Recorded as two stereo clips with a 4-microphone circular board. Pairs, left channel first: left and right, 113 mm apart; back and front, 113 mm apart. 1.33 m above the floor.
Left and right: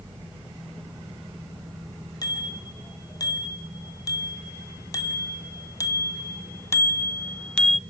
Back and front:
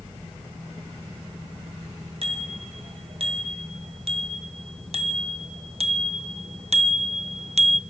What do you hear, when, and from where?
2.2 s a bicycle bell: 35° left, 5 m; by 7.8 s 5° right, 0.5 m